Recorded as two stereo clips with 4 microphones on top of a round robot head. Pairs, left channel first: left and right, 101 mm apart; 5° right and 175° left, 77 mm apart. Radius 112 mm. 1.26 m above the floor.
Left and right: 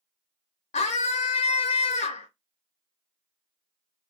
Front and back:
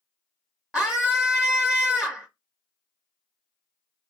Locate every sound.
0.7 s a scream: 85° left, 0.5 m